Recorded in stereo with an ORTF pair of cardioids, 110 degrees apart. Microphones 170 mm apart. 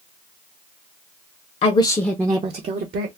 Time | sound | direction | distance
1.6 | a woman speaking | 40° left | 0.7 m